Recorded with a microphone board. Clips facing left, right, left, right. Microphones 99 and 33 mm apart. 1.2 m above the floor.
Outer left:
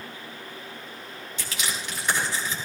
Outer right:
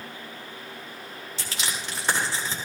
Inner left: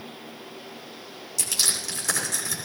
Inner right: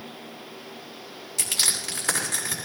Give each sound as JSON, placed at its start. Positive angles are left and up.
{"t": 1.4, "sound": "crushing", "side_deg": -35, "distance_m": 7.5}